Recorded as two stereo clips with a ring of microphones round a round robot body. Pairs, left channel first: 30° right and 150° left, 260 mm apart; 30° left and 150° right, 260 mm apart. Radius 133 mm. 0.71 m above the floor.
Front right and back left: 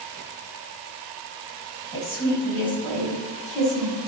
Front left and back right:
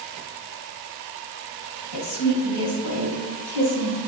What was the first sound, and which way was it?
A woman speaking, 50° left.